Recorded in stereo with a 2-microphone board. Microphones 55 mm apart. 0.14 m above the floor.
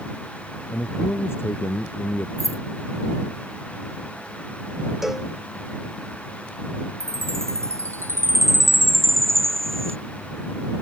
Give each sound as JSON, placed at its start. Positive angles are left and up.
{"t": 0.7, "sound": "a man speaking", "side_deg": 50}
{"t": 2.4, "sound": "keys jangling", "side_deg": 75}
{"t": 5.0, "sound": "a cowbell", "side_deg": -5}
{"t": 7.0, "sound": "a chime", "side_deg": -60}